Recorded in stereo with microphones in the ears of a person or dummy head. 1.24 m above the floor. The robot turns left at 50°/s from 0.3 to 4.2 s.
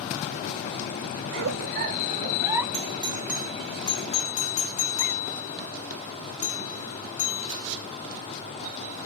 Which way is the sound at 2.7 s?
35° right (ahead or behind).